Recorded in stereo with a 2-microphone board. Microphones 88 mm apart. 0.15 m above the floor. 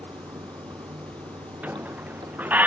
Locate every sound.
0.0 s running water: 60° right (ahead or behind)
1.6 s a squeak: 20° right (ahead or behind)